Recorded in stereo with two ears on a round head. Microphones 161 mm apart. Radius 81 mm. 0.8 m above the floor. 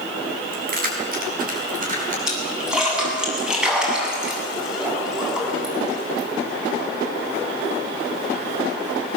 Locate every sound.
0.5 s keys jangling: 55° right (ahead or behind), 5 m; by 2.2 s 50° right (ahead or behind), 7.5 m
2.3 s a splash: 5° right (ahead or behind), 8 m